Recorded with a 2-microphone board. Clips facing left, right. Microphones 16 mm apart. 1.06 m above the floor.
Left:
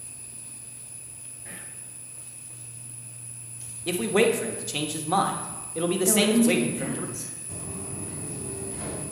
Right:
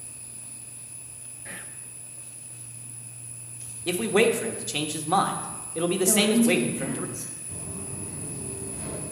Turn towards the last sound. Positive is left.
turn(degrees=45)  # may be behind; listen again after turning